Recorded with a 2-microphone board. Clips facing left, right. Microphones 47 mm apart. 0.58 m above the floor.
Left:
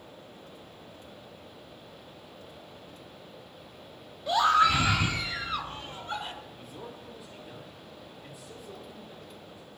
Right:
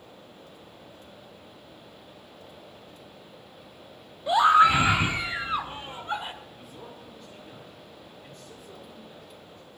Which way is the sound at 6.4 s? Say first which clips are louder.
Left 1 dB; 5° left (ahead or behind).